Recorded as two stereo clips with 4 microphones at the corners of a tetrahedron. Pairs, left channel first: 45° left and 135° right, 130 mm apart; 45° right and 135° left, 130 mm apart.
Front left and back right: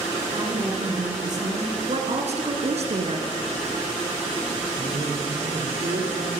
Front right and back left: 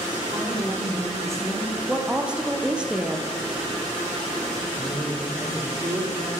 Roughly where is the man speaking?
Behind.